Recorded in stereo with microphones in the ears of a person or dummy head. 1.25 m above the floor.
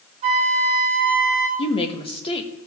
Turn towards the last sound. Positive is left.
turn(degrees=20)  # may be behind; listen again after turning